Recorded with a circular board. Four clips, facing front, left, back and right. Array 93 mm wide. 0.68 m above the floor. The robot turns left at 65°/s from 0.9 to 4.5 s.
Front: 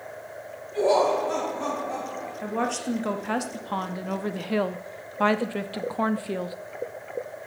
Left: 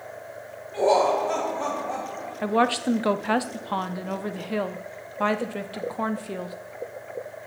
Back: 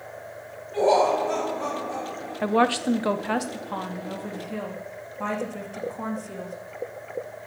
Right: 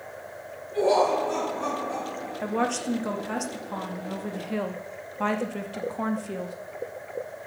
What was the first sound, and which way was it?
Laughter, 140° left.